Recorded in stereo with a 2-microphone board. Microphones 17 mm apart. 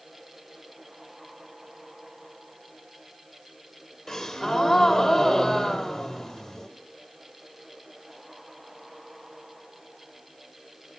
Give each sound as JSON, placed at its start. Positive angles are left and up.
{"t": 4.1, "sound": "a gasp", "side_deg": 20, "distance_m": 1.0}